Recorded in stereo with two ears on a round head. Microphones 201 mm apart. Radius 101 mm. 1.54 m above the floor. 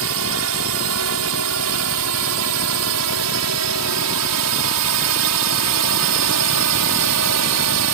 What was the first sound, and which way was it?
A drone, 70° right (ahead or behind).